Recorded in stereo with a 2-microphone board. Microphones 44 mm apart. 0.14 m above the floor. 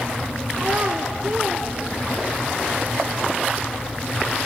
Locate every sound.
0.6 s a child speaking: 40° right (ahead or behind), 1.1 m